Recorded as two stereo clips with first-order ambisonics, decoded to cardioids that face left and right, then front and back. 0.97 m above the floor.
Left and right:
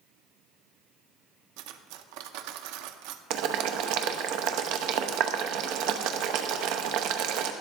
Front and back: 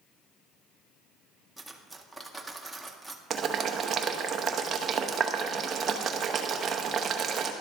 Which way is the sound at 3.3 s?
115° right.